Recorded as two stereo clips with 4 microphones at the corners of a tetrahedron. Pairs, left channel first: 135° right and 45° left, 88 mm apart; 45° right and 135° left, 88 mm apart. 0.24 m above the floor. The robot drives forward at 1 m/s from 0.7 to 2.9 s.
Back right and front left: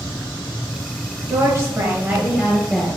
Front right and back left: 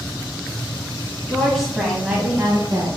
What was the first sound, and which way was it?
A woman speaking, 30° left.